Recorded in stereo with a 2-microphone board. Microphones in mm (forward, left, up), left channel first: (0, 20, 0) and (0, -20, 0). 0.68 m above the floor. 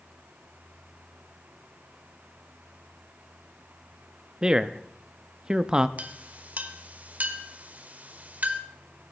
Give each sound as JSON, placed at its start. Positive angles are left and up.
{"t": 4.4, "sound": "a man speaking", "side_deg": -20, "distance_m": 0.5}
{"t": 6.0, "sound": "a clink", "side_deg": -40, "distance_m": 1.2}